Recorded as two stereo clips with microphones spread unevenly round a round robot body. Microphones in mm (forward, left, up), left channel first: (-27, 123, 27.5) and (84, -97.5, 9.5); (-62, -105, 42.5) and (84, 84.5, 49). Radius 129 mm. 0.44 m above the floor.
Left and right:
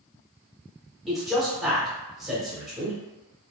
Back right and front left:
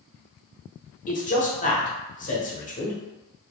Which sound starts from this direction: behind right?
A man speaking, at 1.1 s.